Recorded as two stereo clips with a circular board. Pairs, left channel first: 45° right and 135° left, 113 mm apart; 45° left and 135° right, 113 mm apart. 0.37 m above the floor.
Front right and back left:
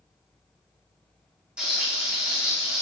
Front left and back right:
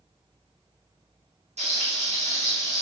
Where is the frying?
140° right, 5 m.